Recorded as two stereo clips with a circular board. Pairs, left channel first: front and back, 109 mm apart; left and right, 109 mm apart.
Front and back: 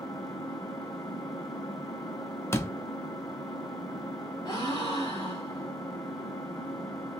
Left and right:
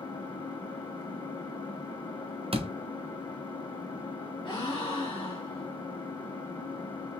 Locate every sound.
0.0 s an engine running: 50° left, 1.3 m
2.5 s a door slam: 65° right, 0.6 m
4.5 s a gasp: 50° left, 2.0 m